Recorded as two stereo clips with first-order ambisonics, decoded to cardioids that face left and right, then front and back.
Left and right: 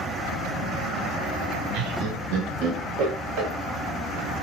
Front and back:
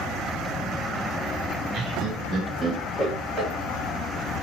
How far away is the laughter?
About 0.7 m.